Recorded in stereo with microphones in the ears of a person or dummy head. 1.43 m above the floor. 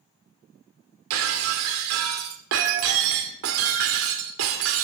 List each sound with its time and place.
1.1 s breaking glass: 70° right (ahead or behind), 2 m